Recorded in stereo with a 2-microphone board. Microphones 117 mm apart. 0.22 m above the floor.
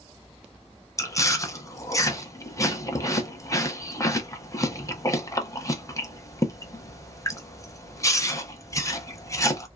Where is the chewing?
30° left (ahead or behind), 0.5 m.